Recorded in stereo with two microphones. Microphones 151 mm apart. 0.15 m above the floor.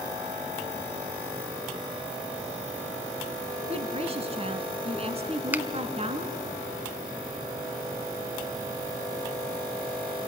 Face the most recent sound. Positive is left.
turn(degrees=-10)  # may be behind; listen again after turning